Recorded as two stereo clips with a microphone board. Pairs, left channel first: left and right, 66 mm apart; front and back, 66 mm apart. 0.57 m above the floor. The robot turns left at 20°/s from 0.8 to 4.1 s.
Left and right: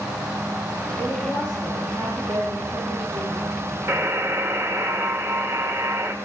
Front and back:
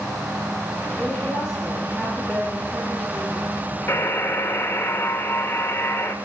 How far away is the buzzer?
About 1.8 m.